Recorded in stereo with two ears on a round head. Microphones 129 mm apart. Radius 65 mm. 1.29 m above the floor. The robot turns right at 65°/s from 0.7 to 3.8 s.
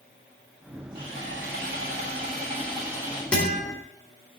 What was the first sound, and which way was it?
Sawing, 145° right.